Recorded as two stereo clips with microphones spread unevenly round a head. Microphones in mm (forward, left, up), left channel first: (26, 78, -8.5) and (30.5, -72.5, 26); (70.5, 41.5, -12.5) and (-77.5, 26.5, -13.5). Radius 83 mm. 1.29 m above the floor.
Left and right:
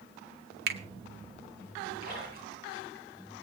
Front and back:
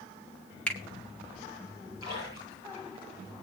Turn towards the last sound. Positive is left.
turn(degrees=-60)